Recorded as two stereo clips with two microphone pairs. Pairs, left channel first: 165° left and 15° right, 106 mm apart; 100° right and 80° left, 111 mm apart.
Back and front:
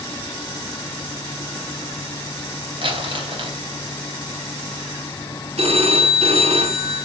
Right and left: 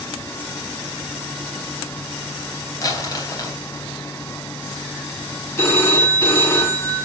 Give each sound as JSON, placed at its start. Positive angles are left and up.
{"t": 2.8, "sound": "crumpling", "azimuth_deg": -45, "distance_m": 3.5}
{"t": 5.6, "sound": "a phone ringing", "azimuth_deg": -35, "distance_m": 3.5}